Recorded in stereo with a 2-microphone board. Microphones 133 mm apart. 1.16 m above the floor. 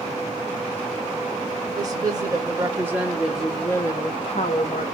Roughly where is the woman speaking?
Right.